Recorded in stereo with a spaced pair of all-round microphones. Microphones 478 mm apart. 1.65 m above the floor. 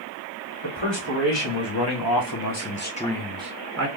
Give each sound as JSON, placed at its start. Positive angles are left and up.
{"t": 0.6, "sound": "a man speaking", "side_deg": 70, "distance_m": 1.4}